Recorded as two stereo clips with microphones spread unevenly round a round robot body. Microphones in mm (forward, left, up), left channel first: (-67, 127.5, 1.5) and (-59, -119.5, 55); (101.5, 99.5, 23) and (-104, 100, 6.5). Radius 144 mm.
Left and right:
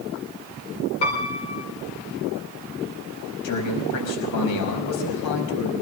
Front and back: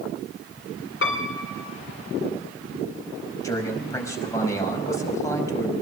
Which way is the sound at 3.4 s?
75° left.